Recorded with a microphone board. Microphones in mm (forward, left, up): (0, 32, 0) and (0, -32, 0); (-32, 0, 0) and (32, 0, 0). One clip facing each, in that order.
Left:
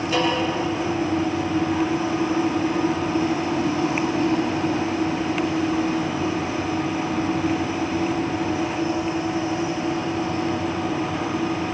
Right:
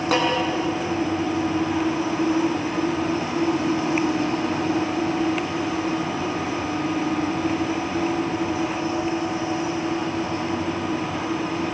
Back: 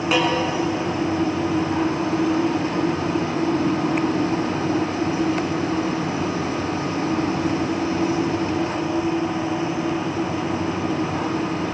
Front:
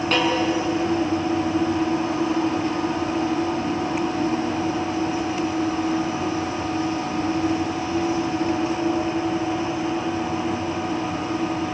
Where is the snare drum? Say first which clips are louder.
Right 1 dB, back 1 dB; 100° right, 7.5 m.